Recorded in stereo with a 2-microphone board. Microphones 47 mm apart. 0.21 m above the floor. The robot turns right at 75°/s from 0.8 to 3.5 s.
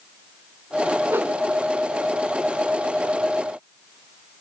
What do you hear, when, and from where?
1.1 s a whoosh: 60° right (ahead or behind), 0.8 m; by 1.4 s 45° right (ahead or behind), 0.8 m